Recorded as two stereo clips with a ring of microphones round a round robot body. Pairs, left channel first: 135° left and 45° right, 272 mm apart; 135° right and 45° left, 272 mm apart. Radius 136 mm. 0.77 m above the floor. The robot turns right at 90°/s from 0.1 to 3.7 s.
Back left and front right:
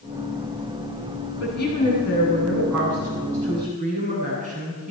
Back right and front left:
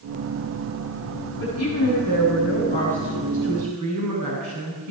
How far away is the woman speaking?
About 8.5 m.